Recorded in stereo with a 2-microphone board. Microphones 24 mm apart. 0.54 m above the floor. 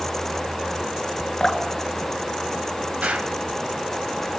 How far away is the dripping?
About 3 m.